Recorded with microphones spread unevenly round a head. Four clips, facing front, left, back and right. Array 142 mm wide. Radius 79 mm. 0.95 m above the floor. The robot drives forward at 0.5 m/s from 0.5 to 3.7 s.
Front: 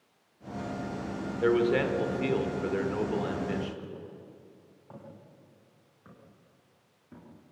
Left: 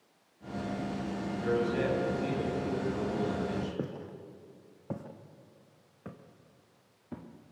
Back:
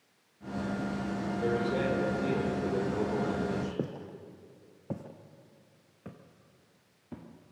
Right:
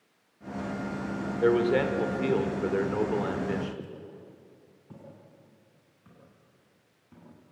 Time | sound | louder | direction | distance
1.4 | a man speaking | right 7 dB, front 6 dB | 75° right | 4 m
3.8 | footsteps | left 4 dB, back 6 dB | 155° left | 2 m